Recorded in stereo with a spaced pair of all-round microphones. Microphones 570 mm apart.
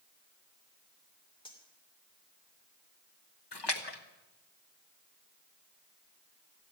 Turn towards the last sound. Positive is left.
turn(degrees=45)  # may be behind; listen again after turning